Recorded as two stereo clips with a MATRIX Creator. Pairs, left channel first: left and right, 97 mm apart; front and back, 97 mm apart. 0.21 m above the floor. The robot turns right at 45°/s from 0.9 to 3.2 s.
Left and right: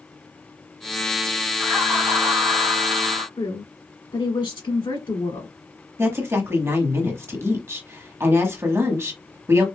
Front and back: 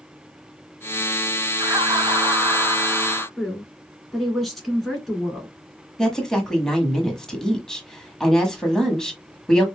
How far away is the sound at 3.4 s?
About 2.5 m.